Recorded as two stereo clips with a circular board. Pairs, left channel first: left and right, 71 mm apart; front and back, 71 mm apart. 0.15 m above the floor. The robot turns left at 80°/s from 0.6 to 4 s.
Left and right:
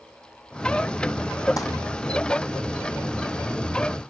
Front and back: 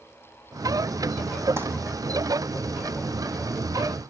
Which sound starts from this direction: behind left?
Crumpling, at 1.6 s.